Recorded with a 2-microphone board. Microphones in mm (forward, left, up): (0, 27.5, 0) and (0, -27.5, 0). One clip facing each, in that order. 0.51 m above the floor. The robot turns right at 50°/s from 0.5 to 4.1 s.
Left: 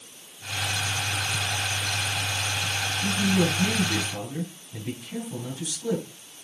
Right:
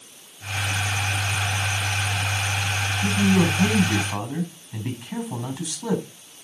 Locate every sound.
3.0 s a man speaking: 150° right, 4.5 m; by 6.0 s 90° right, 4.5 m